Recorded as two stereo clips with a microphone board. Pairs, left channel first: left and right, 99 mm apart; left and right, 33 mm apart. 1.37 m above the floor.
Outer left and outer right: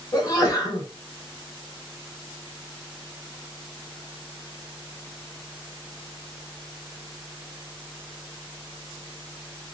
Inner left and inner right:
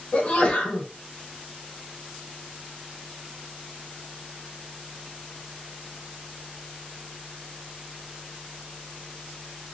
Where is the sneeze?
35° left (ahead or behind), 2 m.